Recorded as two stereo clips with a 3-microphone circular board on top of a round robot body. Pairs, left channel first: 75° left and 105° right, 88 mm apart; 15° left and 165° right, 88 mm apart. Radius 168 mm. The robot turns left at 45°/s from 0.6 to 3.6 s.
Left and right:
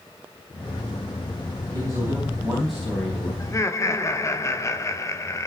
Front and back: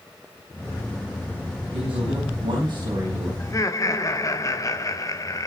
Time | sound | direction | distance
1.7 | a man speaking | 150° right | 4.5 m
3.4 | laughter | 50° left | 1.8 m